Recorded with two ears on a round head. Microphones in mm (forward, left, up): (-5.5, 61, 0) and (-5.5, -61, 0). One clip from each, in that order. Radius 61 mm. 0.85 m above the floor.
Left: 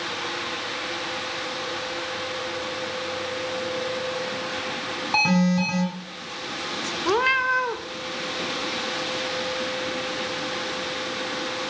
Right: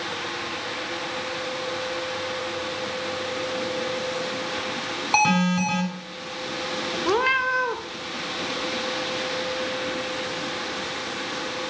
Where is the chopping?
I don't hear chopping.